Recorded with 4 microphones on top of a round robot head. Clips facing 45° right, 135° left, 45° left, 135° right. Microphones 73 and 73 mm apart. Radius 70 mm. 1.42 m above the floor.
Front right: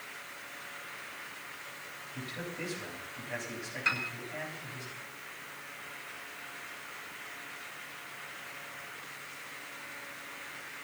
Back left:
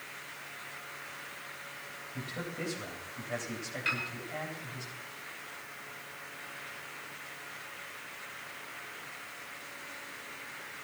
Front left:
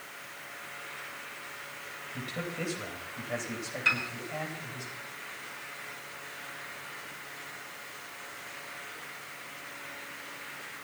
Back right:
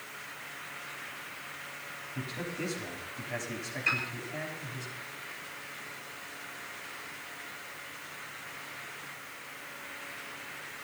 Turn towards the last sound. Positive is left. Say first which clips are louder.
# front right 2 dB, front left 2 dB
turn(degrees=25)